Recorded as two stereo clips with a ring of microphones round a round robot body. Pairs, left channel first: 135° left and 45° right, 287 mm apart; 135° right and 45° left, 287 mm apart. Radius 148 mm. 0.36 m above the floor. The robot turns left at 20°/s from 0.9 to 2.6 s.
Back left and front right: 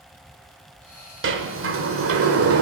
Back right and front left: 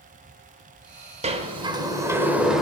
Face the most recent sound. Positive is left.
turn(degrees=-45)